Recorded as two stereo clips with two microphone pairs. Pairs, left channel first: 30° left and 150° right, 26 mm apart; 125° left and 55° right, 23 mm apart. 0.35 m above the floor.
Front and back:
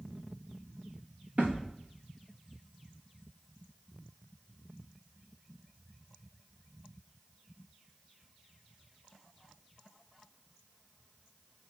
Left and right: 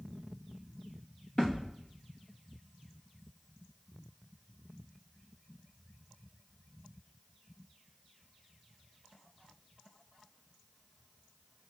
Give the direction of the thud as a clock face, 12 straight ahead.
6 o'clock.